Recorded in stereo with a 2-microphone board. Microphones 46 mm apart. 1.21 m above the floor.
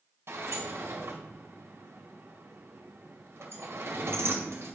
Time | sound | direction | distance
0.3 | a sliding door | 75° right (ahead or behind) | 2 m